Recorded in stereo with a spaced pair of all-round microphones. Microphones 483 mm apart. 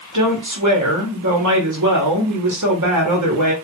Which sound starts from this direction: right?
A woman speaking, at 0.1 s.